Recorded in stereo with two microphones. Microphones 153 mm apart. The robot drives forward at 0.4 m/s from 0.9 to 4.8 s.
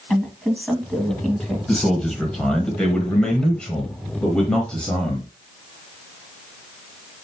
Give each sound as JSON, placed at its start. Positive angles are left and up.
{"t": 0.1, "sound": "a woman speaking", "side_deg": 5, "distance_m": 2.0}
{"t": 1.7, "sound": "a man speaking", "side_deg": 5, "distance_m": 1.5}